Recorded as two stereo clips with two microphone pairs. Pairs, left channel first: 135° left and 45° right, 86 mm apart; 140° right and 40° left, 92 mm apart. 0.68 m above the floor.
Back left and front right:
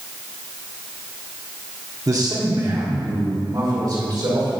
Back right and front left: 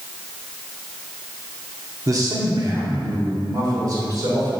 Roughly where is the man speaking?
Ahead.